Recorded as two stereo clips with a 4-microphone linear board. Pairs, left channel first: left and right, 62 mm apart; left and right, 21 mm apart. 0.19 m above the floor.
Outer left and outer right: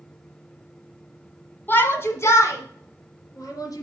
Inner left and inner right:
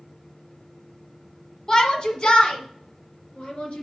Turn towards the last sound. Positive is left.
turn(degrees=65)  # may be behind; listen again after turning